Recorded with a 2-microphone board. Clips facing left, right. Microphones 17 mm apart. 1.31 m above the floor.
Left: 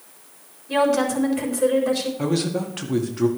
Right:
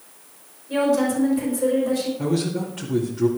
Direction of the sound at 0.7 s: 50° left (ahead or behind).